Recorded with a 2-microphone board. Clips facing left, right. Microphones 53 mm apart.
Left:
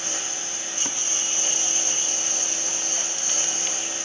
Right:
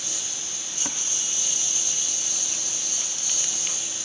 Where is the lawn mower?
45° left (ahead or behind).